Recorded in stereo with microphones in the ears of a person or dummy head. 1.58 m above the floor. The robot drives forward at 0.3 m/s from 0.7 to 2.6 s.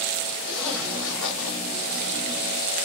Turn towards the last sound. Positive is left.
turn(degrees=0)  # may be behind; listen again after turning